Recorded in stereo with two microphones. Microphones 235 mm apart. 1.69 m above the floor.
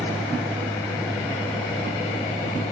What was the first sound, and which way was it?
A vehicle, 5° left (ahead or behind).